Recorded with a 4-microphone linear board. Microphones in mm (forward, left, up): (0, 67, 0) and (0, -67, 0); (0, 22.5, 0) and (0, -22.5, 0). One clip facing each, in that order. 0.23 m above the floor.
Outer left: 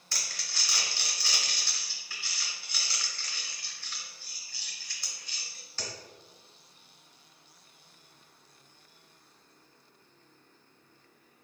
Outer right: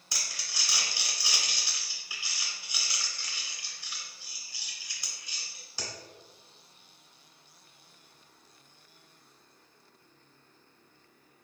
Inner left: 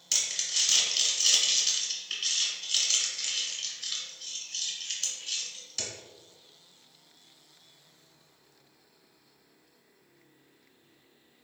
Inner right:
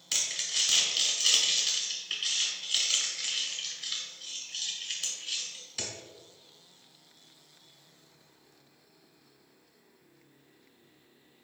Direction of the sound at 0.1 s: 15° right (ahead or behind).